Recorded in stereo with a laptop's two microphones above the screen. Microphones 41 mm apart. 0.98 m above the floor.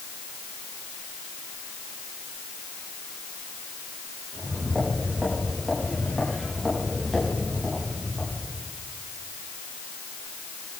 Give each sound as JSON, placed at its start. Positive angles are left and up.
{"t": 4.3, "sound": "footsteps", "side_deg": -15, "distance_m": 7.0}